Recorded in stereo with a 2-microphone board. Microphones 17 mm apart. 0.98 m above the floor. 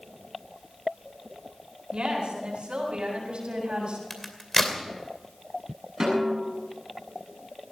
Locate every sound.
1.9 s a woman speaking: 75° right (ahead or behind), 8 m; by 4.0 s 70° right (ahead or behind), 7 m
4.1 s a crack: 15° left (ahead or behind), 2.5 m
6.0 s a snare drum: 30° right (ahead or behind), 7.5 m